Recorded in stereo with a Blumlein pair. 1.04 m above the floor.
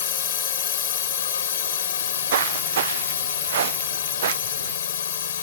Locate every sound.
0.0 s a drone: 65° left
2.0 s footsteps: 60° right